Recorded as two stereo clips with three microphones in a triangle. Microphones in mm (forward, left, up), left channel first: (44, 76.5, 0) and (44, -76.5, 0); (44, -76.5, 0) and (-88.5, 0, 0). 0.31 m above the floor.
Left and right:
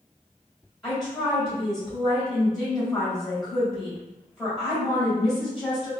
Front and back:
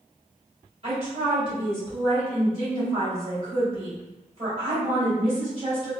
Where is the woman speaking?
175° left, 1.4 m.